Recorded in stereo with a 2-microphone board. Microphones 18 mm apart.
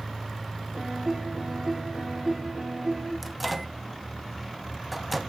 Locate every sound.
0.7 s a piano: 75° right (ahead or behind), 5 m
3.2 s a microwave: 5° right (ahead or behind), 0.9 m